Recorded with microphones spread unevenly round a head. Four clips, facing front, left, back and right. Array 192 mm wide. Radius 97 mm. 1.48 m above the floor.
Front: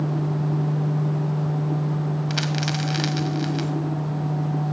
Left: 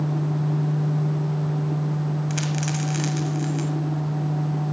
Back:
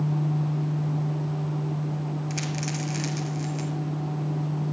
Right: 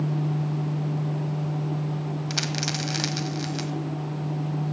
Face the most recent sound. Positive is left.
turn(degrees=-20)